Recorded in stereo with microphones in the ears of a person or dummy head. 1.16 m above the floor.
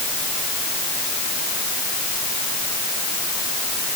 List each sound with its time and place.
Only background noise.